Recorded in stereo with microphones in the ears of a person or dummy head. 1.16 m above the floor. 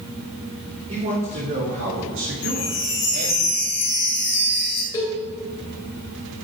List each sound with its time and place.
0.9 s a man speaking: 40° right (ahead or behind), 2 m; by 3.4 s 80° right, 1.9 m
2.4 s a chime: 60° left (ahead or behind), 3 m
4.9 s a cowbell: 20° left (ahead or behind), 2.5 m